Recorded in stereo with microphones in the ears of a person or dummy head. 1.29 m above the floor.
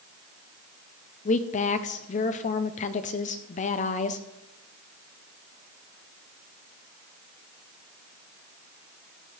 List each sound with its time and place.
1.2 s a woman speaking: 35° left (ahead or behind), 0.5 m